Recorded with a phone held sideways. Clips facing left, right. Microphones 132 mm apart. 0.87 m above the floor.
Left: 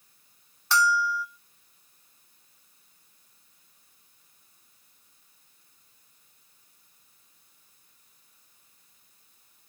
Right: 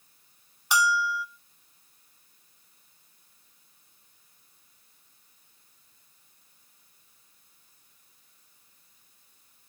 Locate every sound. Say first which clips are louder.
0.7 s a bell: left 1 dB; 15° right (ahead or behind), 0.7 m